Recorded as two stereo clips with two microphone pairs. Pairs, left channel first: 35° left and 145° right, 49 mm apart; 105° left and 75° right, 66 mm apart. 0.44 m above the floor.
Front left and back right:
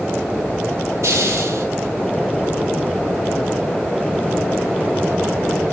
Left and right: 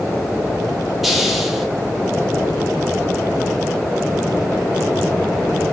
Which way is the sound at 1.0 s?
165° right.